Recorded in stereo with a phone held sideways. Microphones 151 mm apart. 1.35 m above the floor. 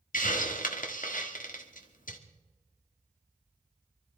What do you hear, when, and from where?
0.1 s a hiss: 70° left (ahead or behind), 1.5 m